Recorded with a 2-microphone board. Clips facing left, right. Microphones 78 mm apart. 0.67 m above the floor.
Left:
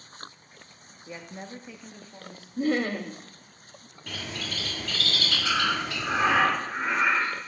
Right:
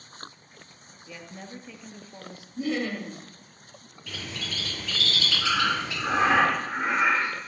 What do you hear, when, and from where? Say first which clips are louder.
1.1 s a woman speaking: left 2 dB; 30° left (ahead or behind), 0.8 m; by 2.5 s 20° right (ahead or behind), 0.6 m
2.6 s laughter: left 3 dB; 45° left (ahead or behind), 0.8 m
4.1 s a bird: left 1 dB; 55° left (ahead or behind), 1.5 m
5.4 s breathing: right 1 dB; 65° right (ahead or behind), 3 m